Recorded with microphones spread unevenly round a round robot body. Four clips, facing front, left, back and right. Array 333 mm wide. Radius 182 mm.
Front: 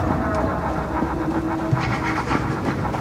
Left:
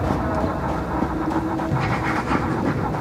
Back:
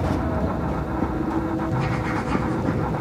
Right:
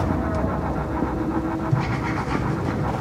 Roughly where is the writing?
Left.